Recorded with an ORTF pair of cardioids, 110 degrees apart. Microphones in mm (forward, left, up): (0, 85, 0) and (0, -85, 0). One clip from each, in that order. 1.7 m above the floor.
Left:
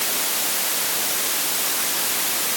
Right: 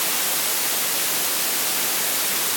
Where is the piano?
I don't hear a piano.